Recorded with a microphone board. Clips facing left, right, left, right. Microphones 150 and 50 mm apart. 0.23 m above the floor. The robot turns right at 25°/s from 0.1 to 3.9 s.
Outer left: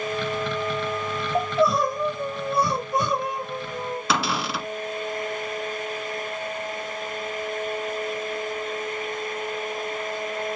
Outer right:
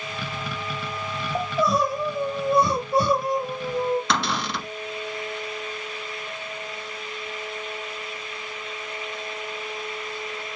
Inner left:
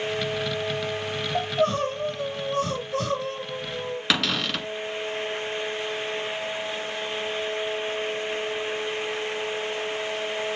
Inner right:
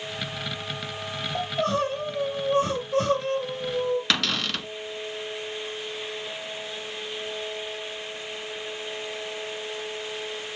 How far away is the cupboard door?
About 1.0 m.